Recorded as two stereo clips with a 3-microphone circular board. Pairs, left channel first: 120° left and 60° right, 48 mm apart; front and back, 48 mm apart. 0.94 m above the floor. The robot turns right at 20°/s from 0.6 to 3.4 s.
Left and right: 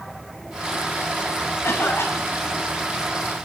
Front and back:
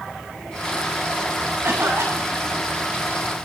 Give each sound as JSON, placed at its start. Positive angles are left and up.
{"t": 1.6, "sound": "a cough", "azimuth_deg": 150, "distance_m": 8.0}